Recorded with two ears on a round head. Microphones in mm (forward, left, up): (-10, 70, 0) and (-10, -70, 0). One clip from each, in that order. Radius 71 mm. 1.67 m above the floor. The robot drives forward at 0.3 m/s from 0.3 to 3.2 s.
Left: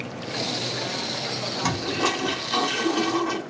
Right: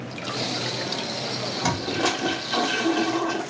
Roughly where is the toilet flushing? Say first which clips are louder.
Even; centre.